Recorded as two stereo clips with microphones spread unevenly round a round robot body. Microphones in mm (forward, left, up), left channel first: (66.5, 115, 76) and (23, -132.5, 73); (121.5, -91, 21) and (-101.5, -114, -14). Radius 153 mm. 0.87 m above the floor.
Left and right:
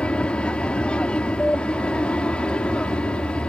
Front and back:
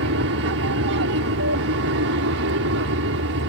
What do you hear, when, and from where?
0.0 s an aircraft: 165° left